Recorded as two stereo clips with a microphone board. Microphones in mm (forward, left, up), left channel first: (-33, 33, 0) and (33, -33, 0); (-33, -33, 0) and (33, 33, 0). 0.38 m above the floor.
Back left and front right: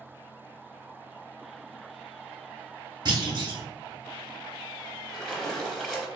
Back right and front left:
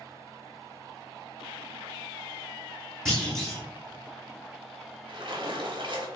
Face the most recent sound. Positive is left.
turn(degrees=50)